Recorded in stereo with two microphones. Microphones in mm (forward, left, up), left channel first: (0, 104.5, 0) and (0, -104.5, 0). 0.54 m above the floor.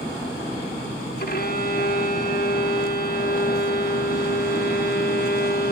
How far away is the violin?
About 0.6 m.